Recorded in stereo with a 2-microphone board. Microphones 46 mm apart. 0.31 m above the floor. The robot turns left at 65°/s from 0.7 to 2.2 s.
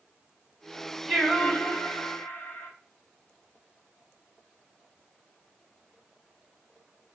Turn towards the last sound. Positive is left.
turn(degrees=110)